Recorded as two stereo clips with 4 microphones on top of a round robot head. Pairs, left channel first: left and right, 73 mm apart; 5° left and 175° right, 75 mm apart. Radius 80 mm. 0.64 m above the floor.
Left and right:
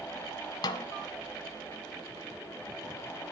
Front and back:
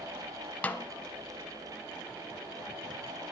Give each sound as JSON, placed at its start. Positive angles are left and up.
{"t": 0.6, "sound": "a snare drum", "azimuth_deg": 70, "distance_m": 0.6}